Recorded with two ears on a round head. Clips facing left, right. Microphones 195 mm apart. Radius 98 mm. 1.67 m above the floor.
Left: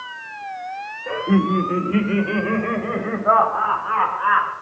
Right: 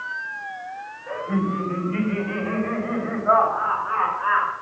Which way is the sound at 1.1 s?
75° left (ahead or behind).